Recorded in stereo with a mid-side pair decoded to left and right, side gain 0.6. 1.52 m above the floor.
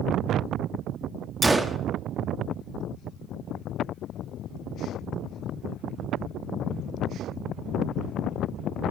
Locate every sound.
1.4 s a gunshot: 15° right, 0.6 m